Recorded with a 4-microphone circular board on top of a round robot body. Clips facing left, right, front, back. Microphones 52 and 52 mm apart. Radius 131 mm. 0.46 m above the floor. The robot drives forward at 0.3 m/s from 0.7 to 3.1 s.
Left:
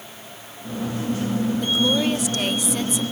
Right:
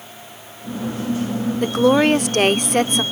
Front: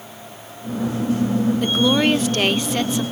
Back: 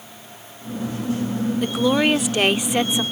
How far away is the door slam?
I don't hear a door slam.